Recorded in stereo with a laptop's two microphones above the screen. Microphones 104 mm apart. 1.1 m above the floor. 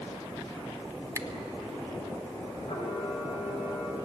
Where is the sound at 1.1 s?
30° right (ahead or behind), 1.1 m.